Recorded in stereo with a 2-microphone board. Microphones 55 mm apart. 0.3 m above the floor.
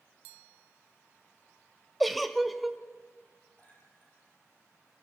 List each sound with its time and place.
2.0 s a giggle: centre (ahead or behind), 1.0 m
3.6 s a clink: 30° left (ahead or behind), 8.5 m